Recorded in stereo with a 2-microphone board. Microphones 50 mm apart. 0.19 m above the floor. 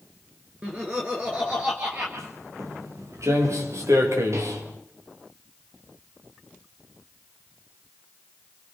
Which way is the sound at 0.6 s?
25° right (ahead or behind).